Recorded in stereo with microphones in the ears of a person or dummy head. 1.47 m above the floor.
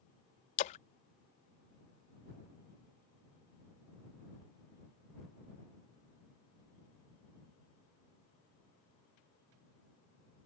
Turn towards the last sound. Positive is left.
turn(degrees=40)  # may be behind; listen again after turning